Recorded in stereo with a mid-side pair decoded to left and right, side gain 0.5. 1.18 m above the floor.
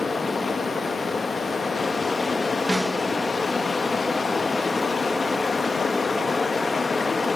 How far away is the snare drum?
About 1.8 m.